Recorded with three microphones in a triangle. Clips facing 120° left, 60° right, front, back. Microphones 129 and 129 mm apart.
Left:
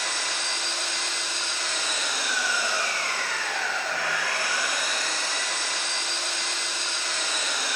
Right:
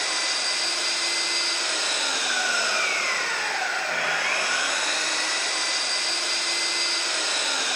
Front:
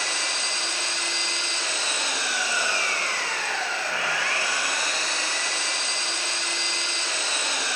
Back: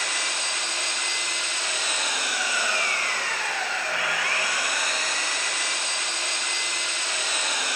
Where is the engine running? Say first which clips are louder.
Right 1 dB, even; 60° right, 2 m.